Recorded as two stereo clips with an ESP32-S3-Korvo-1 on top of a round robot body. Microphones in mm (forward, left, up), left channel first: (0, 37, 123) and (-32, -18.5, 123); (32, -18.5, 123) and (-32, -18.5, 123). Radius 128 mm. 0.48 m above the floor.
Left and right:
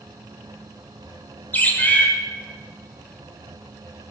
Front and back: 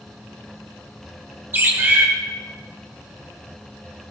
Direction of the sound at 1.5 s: 125° left.